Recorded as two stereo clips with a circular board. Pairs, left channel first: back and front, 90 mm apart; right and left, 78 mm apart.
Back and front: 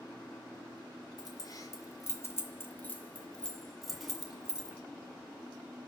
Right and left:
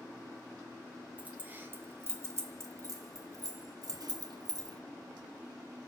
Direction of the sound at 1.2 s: 155° left.